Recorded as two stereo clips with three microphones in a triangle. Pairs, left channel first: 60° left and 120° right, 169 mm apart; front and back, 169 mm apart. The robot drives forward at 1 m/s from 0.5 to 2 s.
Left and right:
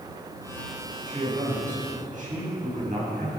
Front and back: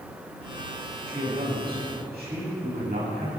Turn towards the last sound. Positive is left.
turn(degrees=-160)